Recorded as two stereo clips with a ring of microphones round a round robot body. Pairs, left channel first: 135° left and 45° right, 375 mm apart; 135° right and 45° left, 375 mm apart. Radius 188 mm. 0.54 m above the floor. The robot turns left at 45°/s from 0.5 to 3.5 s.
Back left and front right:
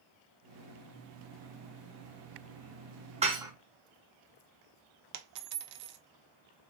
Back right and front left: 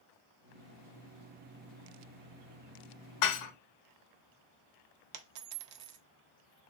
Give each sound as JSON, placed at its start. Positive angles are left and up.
{"t": 3.2, "sound": "dishes clattering", "azimuth_deg": -115, "distance_m": 0.6}
{"t": 5.1, "sound": "a dropped coin", "azimuth_deg": 0, "distance_m": 0.5}